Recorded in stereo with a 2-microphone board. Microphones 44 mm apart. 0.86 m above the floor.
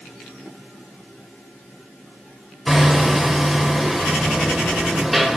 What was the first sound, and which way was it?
Hammering, 5° right (ahead or behind).